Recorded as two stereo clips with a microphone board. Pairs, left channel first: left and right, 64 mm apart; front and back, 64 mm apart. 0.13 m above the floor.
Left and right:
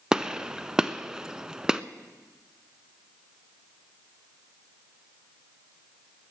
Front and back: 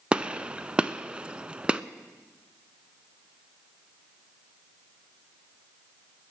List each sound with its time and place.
0.1 s a gunshot: 145° right, 0.5 m